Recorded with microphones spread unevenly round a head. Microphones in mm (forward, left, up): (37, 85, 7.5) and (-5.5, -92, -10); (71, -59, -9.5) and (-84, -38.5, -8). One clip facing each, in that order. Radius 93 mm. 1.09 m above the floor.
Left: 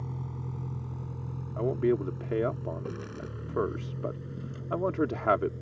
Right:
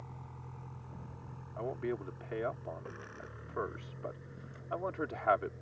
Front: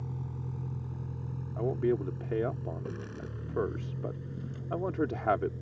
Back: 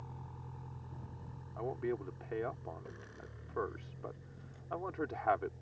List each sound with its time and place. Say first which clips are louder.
0.0 s a vehicle: left 11 dB, front 10 dB; 45° left; by 5.6 s 30° left
1.6 s a man speaking: left 11 dB, front 8 dB; 45° left